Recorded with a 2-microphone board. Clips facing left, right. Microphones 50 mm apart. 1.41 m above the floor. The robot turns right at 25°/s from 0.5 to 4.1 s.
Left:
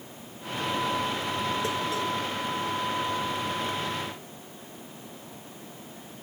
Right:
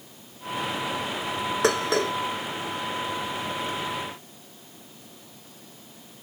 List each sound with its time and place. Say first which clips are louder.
1.6 s dishes clattering: right 5 dB; 85° right; by 2.1 s 75° right (ahead or behind)